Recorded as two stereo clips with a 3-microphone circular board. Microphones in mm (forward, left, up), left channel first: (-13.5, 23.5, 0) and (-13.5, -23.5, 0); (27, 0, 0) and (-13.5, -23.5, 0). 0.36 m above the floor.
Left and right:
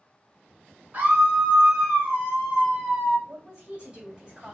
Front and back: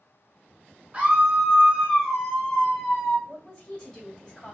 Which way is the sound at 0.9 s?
105° right.